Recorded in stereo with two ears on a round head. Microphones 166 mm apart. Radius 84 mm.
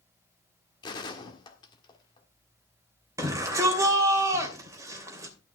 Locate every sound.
0.8 s a gunshot: 25° left (ahead or behind), 1.6 m
3.2 s a shout: 15° right (ahead or behind), 2.5 m